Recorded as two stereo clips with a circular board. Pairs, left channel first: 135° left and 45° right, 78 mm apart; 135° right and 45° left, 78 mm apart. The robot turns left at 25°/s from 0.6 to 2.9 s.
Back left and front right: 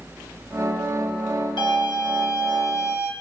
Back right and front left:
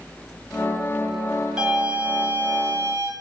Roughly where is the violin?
Behind left.